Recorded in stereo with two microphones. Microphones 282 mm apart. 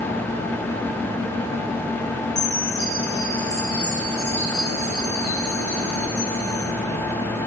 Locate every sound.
2.4 s a chime: 50° right (ahead or behind), 6.5 m